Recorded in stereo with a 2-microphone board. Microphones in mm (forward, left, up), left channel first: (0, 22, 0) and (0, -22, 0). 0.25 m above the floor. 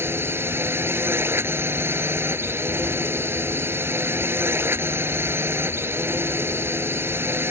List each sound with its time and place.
0.0 s a drone: 60° right (ahead or behind)